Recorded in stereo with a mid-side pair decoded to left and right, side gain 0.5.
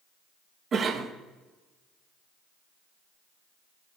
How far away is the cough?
About 2 m.